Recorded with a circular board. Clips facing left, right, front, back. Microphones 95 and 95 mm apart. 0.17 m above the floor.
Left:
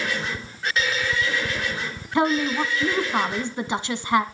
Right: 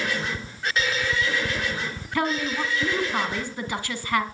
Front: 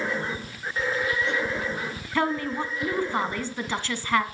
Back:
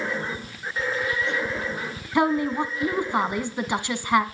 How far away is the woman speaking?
About 1.4 m.